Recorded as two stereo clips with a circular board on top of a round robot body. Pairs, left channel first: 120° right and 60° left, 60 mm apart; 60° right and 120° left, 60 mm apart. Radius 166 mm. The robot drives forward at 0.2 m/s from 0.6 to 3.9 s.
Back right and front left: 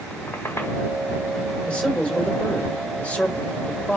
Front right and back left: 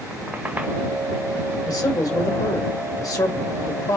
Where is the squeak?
170° right, 1.6 m.